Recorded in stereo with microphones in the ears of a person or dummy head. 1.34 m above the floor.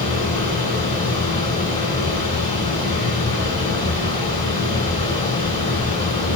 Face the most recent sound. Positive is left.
turn(degrees=40)  # may be behind; listen again after turning